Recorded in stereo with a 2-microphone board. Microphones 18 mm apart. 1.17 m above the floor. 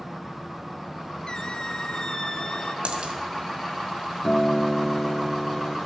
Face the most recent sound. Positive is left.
turn(degrees=55)  # may be behind; listen again after turning